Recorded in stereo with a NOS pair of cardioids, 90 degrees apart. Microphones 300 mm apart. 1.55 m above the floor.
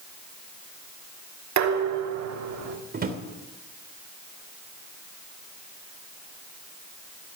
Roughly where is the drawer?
Ahead right.